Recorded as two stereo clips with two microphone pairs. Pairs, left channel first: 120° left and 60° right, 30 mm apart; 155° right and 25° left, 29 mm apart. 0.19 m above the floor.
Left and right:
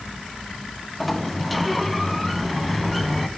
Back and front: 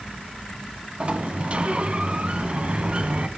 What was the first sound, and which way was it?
A sliding door, 35° left.